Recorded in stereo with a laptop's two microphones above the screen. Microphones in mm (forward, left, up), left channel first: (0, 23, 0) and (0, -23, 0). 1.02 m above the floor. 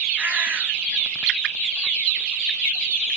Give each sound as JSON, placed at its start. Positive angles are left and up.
{"t": 0.2, "sound": "a bird", "side_deg": -35, "distance_m": 3.0}